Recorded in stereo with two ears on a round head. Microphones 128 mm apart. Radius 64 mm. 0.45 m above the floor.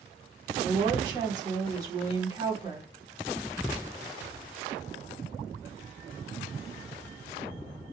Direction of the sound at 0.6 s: 25° right (ahead or behind).